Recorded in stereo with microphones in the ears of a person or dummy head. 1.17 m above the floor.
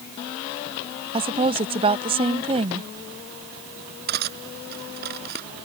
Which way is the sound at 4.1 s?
55° right (ahead or behind).